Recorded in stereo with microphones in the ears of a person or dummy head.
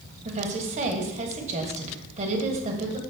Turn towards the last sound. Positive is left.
turn(degrees=-40)  # may be behind; listen again after turning